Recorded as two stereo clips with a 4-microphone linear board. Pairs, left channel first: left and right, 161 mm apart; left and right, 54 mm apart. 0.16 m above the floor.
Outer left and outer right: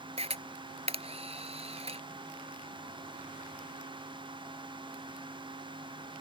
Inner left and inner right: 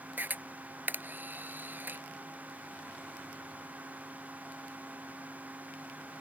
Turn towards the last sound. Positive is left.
turn(degrees=-40)  # may be behind; listen again after turning